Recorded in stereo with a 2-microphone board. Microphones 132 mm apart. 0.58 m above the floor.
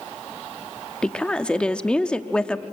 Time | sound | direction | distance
1.0 | a woman speaking | 5° left (ahead or behind) | 0.7 m